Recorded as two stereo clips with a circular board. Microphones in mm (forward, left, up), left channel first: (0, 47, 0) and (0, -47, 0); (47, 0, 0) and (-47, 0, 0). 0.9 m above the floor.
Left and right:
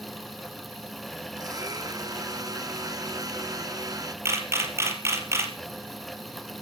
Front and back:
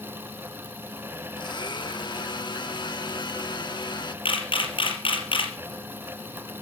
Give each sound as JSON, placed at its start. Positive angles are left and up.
{"t": 1.4, "sound": "a blender", "azimuth_deg": -40, "distance_m": 1.2}
{"t": 4.2, "sound": "a camera shutter", "azimuth_deg": -30, "distance_m": 4.0}